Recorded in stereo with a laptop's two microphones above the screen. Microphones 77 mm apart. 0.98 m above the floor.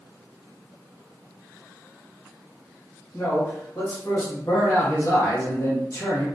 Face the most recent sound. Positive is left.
turn(degrees=45)  # may be behind; listen again after turning